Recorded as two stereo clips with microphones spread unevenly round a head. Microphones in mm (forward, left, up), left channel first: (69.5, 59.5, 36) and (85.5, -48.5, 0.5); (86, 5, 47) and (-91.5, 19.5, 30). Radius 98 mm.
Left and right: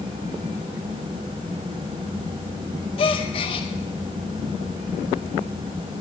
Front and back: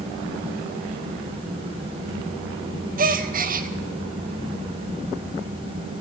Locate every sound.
3.0 s a gasp: 160° left, 0.7 m